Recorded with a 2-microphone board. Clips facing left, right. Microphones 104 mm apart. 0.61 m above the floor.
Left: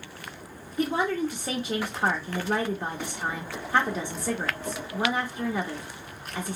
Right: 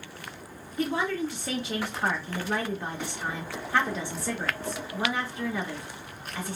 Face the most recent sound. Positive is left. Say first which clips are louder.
# left 2 dB
turn(degrees=20)  # may be behind; listen again after turning